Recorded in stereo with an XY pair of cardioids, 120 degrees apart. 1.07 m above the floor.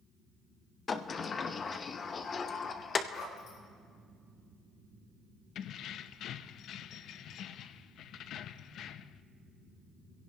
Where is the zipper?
70° left, 7 m.